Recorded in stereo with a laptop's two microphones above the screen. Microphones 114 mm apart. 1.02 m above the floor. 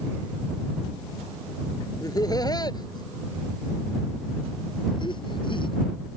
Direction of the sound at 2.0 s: 35° left (ahead or behind).